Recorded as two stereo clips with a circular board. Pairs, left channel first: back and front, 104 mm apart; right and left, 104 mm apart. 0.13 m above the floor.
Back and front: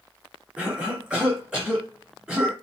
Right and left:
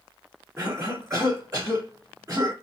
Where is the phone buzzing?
I don't hear a phone buzzing.